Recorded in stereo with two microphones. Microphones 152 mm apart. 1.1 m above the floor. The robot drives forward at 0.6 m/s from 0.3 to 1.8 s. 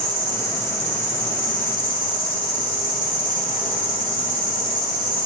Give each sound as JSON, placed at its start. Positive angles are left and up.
{"t": 0.0, "sound": "an insect", "side_deg": 35, "distance_m": 1.6}